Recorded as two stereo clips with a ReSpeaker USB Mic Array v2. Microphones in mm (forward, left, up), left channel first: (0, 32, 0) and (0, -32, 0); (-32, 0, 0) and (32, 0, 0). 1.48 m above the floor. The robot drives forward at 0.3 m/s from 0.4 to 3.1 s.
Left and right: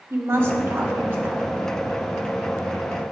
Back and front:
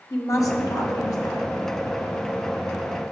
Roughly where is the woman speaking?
Behind right.